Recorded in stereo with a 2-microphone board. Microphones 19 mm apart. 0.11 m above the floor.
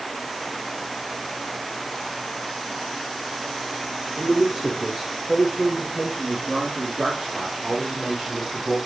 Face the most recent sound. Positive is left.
turn(degrees=-55)  # may be behind; listen again after turning